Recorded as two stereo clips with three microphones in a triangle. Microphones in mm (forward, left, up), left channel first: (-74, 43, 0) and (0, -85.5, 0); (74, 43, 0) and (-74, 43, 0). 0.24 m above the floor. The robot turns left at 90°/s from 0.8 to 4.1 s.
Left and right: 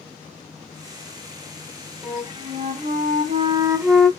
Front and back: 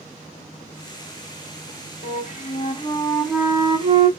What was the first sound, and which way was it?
A flute, 20° left.